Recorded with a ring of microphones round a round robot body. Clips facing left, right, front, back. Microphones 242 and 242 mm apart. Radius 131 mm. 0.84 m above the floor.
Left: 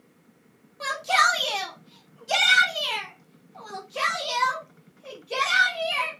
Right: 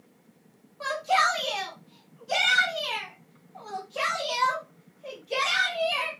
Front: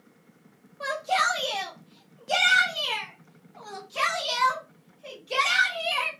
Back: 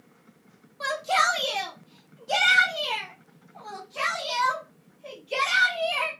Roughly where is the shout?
Behind left.